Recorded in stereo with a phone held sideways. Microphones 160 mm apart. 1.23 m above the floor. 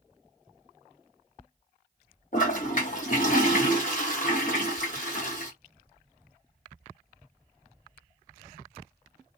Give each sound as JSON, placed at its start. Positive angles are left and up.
{"t": 2.3, "sound": "a toilet flushing", "side_deg": 55, "distance_m": 1.0}